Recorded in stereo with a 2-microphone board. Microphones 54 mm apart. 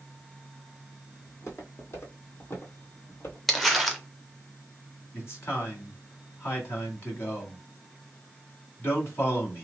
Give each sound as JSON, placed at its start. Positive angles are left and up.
{"t": 1.3, "sound": "footsteps", "side_deg": 55, "distance_m": 1.6}
{"t": 3.5, "sound": "crumpling", "side_deg": 0, "distance_m": 0.7}
{"t": 5.1, "sound": "a man speaking", "side_deg": 45, "distance_m": 1.7}